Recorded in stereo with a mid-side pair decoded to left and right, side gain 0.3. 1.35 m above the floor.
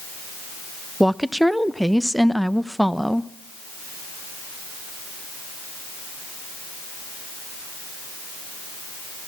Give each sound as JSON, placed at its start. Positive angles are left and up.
{"t": 1.0, "sound": "a woman speaking", "azimuth_deg": -5, "distance_m": 1.0}